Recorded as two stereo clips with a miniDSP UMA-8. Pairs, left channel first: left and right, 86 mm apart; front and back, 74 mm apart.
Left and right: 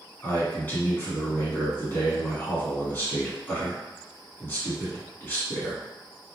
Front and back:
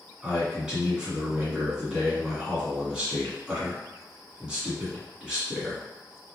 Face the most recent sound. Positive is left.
turn(degrees=120)